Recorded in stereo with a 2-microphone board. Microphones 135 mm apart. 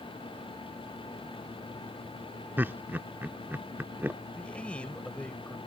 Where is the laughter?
15° right (ahead or behind).